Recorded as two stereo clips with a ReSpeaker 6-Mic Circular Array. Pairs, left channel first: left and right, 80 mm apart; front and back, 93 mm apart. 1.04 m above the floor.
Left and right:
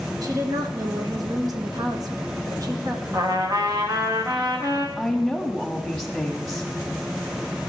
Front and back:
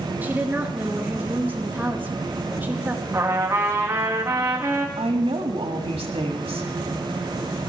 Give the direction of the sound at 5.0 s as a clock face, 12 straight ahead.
6 o'clock.